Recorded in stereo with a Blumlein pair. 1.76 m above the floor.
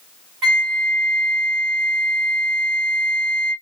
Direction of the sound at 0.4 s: 35° right.